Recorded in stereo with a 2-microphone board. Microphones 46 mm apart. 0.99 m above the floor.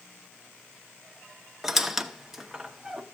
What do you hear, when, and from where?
1.6 s a squeak: 5° right (ahead or behind), 0.8 m